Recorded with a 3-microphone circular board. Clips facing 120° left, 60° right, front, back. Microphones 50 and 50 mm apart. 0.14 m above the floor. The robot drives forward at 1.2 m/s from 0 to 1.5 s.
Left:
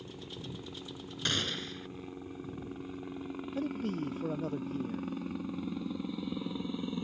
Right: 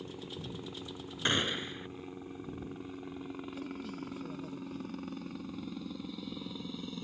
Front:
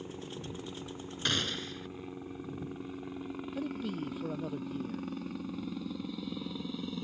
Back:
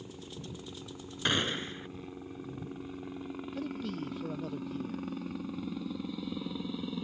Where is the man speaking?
80° left.